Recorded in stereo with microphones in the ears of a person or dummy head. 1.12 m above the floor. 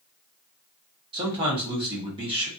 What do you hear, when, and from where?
1.1 s a man speaking: 25° right (ahead or behind), 0.8 m